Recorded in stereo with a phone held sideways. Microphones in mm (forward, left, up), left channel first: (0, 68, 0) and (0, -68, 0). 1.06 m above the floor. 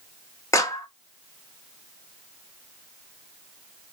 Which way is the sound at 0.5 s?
20° left (ahead or behind).